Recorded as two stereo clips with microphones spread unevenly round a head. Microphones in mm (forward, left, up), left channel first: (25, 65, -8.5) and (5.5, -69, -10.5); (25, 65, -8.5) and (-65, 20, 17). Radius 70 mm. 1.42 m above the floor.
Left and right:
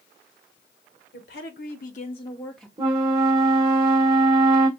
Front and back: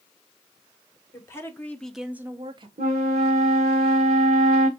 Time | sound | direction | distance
1.1 | a woman speaking | 90° left | 1.3 m
2.8 | a flute | 160° right | 1.1 m